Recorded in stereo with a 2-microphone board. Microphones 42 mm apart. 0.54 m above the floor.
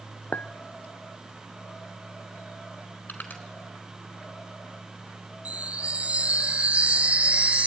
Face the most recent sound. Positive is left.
turn(degrees=-30)  # may be behind; listen again after turning